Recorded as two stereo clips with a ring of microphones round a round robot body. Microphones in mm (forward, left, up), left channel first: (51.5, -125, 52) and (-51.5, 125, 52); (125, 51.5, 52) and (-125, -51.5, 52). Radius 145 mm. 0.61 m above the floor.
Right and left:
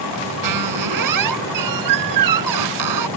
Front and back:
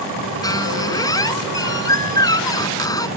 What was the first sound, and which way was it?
A squeak, 100° left.